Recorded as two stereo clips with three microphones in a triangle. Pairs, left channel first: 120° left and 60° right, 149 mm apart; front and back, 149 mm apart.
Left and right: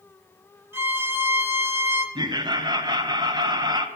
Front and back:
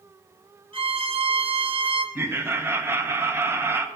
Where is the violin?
135° right, 0.7 m.